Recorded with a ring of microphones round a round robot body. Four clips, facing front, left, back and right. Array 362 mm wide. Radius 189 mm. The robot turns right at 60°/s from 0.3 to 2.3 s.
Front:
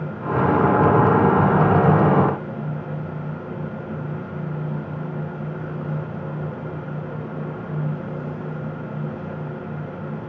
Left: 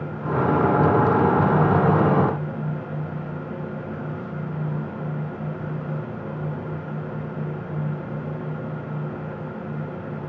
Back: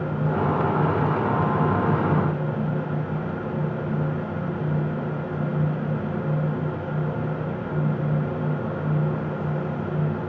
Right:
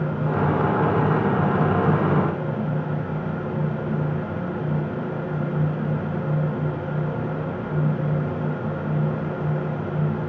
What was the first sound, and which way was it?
Only background noise.